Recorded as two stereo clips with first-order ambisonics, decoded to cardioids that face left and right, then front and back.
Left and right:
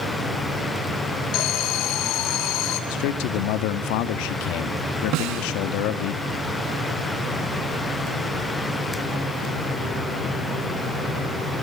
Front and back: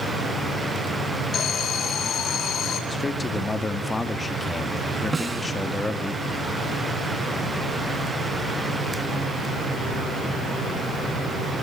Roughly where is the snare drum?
Right.